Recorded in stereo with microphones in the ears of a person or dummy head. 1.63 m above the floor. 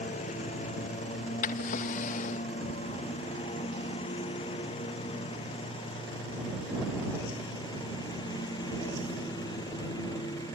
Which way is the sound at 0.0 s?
35° left (ahead or behind).